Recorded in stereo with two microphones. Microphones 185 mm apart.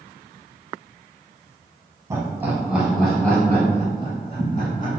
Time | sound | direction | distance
2.1 | laughter | 15° right (ahead or behind) | 1.7 m